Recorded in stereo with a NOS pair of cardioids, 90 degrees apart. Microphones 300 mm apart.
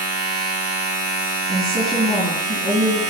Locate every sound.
0.0 s a machine running: 65° right, 1.8 m
1.5 s a woman speaking: 60° right, 2 m